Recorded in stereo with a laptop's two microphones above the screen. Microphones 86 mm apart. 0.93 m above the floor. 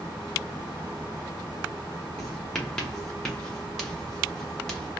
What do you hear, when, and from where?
2.2 s writing: 10° left (ahead or behind), 0.8 m